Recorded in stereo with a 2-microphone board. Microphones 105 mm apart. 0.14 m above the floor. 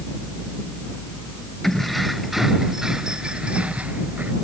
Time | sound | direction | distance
1.6 | keys jangling | 5° left (ahead or behind) | ?